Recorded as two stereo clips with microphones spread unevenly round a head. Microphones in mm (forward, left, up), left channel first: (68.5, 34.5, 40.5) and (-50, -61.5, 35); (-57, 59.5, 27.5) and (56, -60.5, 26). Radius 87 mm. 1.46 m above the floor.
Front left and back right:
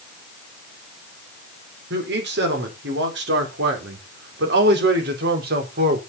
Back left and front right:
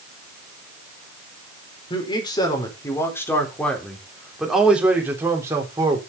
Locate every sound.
1.9 s a man speaking: 165° right, 4.5 m; by 6.0 s 115° right, 4 m